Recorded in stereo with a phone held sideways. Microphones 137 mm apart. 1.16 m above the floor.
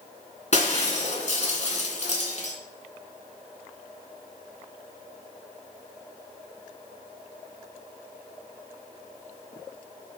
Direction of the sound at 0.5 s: 55° left (ahead or behind).